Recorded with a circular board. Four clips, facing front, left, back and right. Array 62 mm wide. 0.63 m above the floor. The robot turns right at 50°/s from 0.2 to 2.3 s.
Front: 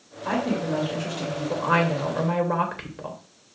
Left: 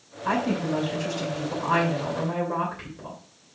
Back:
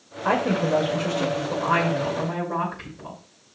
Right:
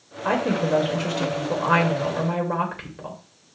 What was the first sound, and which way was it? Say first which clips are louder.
A woman speaking: right 3 dB, back 4 dB; 135° right.